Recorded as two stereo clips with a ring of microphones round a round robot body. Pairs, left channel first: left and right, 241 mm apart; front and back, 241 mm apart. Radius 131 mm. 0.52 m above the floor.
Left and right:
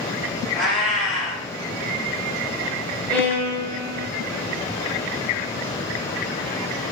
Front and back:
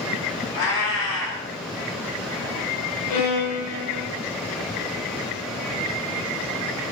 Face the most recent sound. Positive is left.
turn(degrees=5)